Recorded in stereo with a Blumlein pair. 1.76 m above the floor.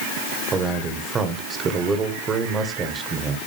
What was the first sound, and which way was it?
A man speaking, 20° right.